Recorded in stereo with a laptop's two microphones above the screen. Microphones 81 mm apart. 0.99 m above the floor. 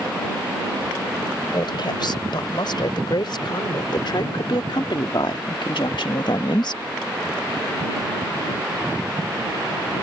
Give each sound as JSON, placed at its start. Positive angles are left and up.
{"t": 1.5, "sound": "a woman speaking", "side_deg": 65}